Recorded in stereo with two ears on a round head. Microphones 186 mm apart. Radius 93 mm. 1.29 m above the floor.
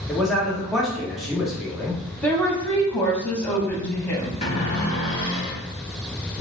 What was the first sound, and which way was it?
A man speaking, centre (ahead or behind).